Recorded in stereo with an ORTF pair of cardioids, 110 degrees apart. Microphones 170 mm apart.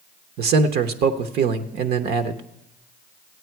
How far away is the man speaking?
About 0.9 m.